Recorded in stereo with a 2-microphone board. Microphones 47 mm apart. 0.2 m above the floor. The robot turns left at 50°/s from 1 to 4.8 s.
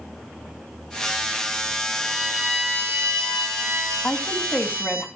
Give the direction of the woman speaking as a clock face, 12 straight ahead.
9 o'clock.